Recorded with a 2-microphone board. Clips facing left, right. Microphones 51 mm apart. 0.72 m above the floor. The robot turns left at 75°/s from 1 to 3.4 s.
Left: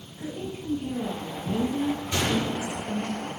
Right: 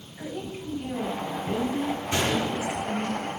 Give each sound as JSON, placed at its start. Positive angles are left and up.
{"t": 0.2, "sound": "a woman speaking", "azimuth_deg": -85, "distance_m": 3.5}
{"t": 2.1, "sound": "a gunshot", "azimuth_deg": -155, "distance_m": 4.0}